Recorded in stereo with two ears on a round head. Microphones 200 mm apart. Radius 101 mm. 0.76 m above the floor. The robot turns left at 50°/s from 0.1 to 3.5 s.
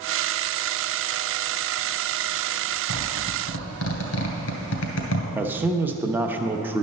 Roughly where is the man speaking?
Centre.